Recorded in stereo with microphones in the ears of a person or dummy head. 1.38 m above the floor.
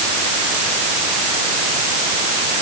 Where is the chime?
I don't hear a chime.